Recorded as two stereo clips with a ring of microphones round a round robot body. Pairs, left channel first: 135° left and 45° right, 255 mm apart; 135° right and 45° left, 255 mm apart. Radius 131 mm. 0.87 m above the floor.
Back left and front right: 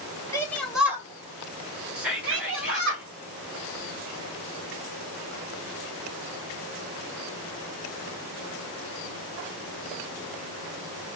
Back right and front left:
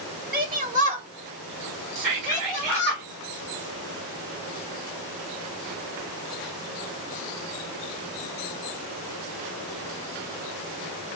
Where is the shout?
65° left, 1.0 m; by 3.0 s 50° right, 1.5 m.